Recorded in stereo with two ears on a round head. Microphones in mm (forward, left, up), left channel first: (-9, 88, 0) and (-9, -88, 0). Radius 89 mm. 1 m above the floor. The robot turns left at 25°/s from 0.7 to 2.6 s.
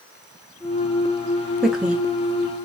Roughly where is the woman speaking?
Centre.